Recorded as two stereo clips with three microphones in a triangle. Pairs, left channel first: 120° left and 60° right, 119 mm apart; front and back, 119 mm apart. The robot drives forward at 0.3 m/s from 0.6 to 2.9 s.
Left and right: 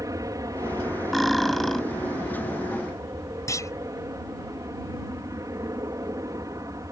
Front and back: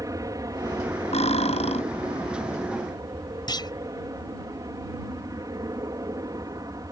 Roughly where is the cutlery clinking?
Ahead left.